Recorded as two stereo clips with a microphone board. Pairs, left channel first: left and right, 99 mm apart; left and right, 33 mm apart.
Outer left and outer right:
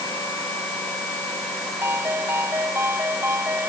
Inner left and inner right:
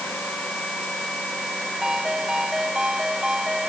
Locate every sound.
1.8 s a ringtone: 25° right (ahead or behind)